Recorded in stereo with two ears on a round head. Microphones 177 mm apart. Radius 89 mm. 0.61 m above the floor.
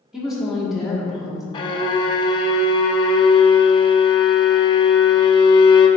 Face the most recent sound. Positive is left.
turn(degrees=25)  # may be behind; listen again after turning